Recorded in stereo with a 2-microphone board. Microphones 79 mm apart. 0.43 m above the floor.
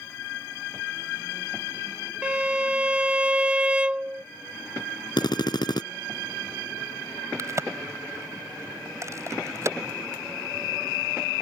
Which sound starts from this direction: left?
A drill, at 5.2 s.